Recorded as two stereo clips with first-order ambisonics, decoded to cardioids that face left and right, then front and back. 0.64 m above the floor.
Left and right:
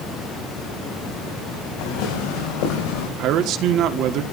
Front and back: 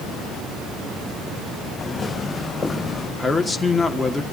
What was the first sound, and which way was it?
Footsteps, 75° left.